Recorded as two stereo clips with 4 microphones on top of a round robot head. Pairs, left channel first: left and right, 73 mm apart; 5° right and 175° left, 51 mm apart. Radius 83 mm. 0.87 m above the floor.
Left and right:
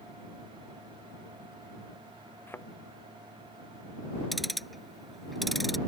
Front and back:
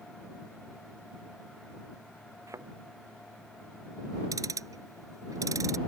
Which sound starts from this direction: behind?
Ticking, at 4.3 s.